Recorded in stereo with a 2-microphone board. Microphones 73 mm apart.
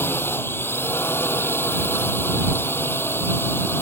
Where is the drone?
35° left (ahead or behind).